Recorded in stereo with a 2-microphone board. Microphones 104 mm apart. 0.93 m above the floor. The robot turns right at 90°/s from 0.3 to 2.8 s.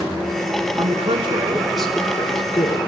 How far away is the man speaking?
About 2.5 m.